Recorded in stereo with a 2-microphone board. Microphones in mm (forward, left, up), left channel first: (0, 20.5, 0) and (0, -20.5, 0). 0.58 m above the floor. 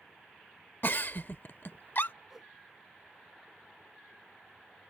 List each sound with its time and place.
0.8 s a giggle: 55° left (ahead or behind)
2.3 s a whoosh: 10° right (ahead or behind)